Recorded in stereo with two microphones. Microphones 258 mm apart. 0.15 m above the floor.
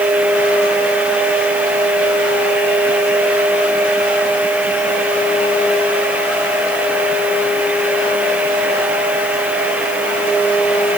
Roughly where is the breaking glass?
No breaking glass in this recording.